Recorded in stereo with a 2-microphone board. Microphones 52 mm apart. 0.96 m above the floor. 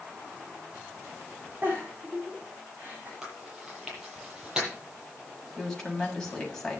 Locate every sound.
1.6 s a giggle: 30° right (ahead or behind), 8.5 m
3.2 s chewing: 10° right (ahead or behind), 10 m
5.6 s a woman speaking: 10° left (ahead or behind), 6.5 m